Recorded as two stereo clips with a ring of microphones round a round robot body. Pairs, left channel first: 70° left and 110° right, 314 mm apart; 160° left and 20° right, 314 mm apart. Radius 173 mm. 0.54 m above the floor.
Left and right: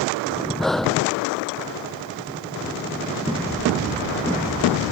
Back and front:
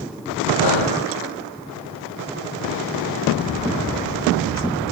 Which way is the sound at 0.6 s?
155° left.